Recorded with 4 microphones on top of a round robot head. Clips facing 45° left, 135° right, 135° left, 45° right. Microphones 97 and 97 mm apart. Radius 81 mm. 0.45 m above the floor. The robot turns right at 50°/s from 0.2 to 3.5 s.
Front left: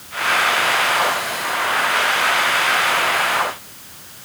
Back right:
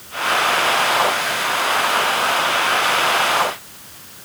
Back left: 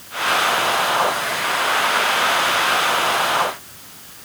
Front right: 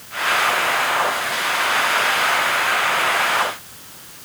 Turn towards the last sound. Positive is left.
No sound to turn to.